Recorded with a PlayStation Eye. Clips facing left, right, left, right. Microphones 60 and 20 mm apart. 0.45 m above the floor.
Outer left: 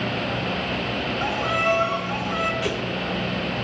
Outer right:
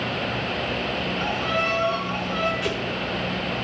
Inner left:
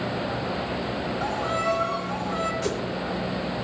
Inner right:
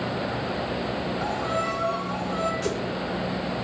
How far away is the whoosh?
About 1.9 m.